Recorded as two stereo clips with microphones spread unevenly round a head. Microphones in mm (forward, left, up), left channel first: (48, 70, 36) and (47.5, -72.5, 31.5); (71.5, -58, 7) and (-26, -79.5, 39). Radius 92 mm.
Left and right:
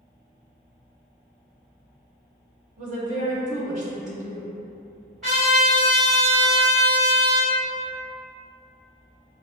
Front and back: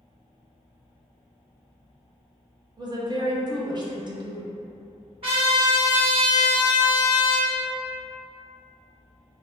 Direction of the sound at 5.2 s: Straight behind.